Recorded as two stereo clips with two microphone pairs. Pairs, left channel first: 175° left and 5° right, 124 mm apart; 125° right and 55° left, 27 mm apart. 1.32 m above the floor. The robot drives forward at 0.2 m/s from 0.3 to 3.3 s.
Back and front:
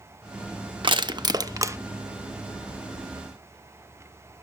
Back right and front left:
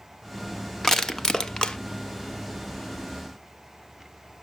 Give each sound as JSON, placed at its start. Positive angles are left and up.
{"t": 0.8, "sound": "crushing", "azimuth_deg": -50, "distance_m": 0.5}